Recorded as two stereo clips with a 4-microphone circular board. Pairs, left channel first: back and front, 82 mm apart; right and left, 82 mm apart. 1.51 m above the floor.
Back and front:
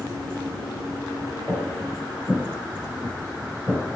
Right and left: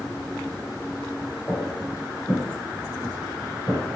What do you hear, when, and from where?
1.5 s footsteps: 130° right, 1.6 m; by 4.0 s 95° left, 1.7 m